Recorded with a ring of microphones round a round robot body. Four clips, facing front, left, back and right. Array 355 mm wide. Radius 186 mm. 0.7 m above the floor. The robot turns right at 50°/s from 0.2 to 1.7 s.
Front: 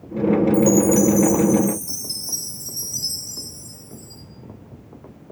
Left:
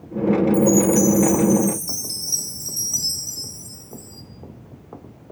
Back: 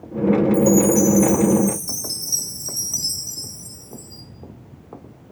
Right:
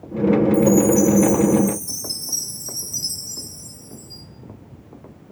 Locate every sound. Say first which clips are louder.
0.5 s a chime: right 1 dB, even; 80° left, 2.5 m; by 4.2 s 135° left, 2.5 m